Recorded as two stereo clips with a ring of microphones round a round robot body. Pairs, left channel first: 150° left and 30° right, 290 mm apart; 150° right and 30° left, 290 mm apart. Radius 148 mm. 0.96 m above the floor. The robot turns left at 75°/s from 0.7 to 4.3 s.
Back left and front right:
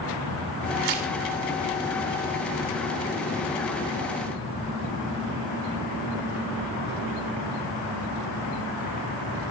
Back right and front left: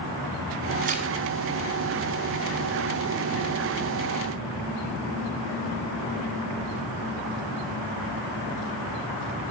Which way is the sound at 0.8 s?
30° right.